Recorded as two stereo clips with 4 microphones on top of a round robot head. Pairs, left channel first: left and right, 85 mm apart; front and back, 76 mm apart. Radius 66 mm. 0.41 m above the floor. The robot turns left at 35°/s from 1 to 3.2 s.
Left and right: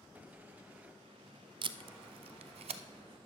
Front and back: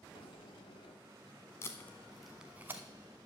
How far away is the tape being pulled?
About 0.6 m.